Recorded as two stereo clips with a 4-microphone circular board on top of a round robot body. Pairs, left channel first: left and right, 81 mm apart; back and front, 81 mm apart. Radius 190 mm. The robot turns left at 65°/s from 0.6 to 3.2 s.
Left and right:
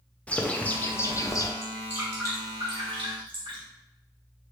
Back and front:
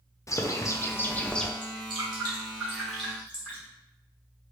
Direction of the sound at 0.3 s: 155° left.